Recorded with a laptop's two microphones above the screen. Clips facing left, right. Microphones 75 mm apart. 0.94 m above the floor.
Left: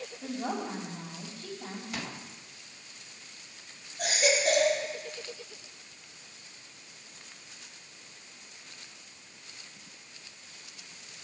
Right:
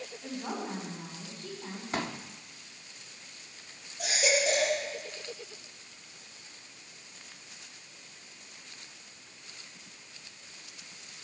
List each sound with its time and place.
0.2 s a woman speaking: 85° left, 5.5 m
1.9 s a pop: 35° right (ahead or behind), 1.0 m
4.0 s a baby crying: 50° left (ahead or behind), 6 m